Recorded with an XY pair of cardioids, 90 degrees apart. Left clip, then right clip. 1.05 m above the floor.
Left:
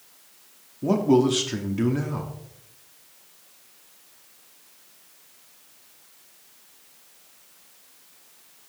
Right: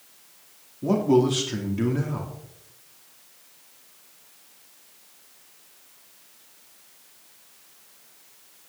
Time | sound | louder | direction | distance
0.8 | a man speaking | even | 15° left | 2 m